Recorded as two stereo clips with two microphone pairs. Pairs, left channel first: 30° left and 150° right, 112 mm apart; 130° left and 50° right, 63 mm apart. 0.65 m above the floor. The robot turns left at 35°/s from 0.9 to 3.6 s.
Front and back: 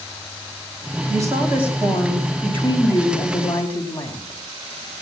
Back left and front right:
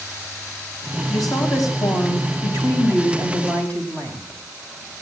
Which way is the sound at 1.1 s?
155° left.